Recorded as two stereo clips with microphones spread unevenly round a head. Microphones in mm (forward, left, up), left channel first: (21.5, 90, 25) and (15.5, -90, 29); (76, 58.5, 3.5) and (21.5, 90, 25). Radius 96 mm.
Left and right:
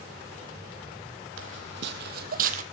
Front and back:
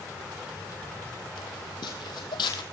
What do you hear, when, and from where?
1.4 s footsteps: 85° right, 2.5 m; by 2.6 s 50° right, 2 m